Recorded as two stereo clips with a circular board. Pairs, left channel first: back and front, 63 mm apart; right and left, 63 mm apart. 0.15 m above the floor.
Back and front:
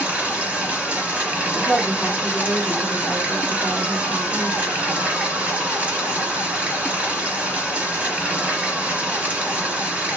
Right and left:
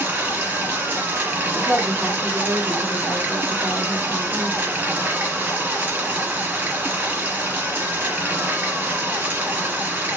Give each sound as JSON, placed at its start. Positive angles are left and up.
{"t": 0.0, "sound": "running water", "azimuth_deg": 45, "distance_m": 1.4}
{"t": 1.5, "sound": "a woman speaking", "azimuth_deg": 55, "distance_m": 1.1}